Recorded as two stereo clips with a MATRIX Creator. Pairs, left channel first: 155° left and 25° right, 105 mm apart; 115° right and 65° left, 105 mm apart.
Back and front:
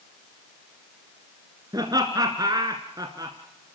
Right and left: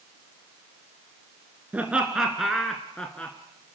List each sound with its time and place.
1.7 s laughter: straight ahead, 1.8 m; by 3.4 s 45° right, 1.8 m